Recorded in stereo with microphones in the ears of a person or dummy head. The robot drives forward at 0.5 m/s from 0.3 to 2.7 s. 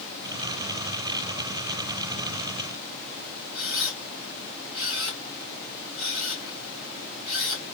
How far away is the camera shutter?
About 2.5 m.